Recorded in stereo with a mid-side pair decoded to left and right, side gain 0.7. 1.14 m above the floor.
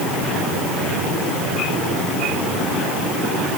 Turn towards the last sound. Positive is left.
No sound to turn to.